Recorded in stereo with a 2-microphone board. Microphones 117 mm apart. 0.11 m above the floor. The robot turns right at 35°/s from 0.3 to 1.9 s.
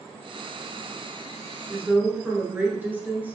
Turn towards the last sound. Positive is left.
turn(degrees=-15)  # may be behind; listen again after turning